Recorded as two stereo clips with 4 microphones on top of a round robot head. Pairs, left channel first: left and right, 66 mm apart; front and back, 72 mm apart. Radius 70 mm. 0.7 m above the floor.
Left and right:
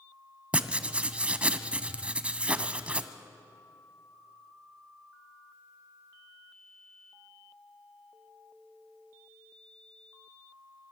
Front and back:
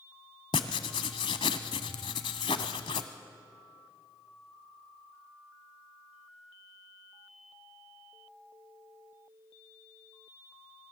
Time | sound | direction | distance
0.5 | writing | 25° right | 0.8 m